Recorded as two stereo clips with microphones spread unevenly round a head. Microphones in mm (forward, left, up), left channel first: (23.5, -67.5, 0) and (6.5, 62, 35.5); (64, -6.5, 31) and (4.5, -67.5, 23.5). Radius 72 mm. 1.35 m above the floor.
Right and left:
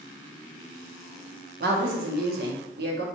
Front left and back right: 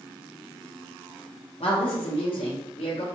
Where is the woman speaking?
95° left, 0.9 m.